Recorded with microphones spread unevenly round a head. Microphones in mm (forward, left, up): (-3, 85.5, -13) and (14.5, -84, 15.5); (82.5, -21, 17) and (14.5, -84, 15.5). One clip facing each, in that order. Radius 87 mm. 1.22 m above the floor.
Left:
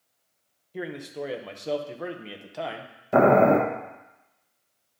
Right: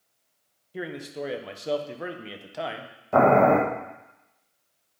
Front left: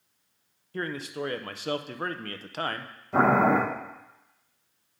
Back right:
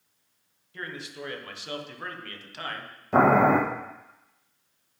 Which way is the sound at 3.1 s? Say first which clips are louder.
Left 1 dB, back right 2 dB; 170° left.